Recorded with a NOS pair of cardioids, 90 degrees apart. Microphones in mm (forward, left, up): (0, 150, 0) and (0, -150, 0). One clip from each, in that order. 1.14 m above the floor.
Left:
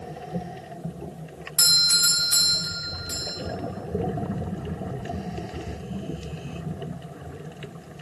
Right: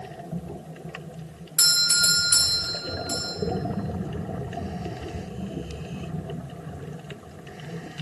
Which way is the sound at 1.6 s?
10° right.